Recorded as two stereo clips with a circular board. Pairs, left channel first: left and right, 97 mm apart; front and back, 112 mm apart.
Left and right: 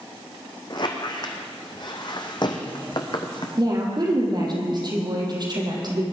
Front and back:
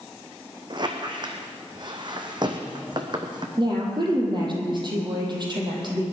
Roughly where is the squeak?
Behind left.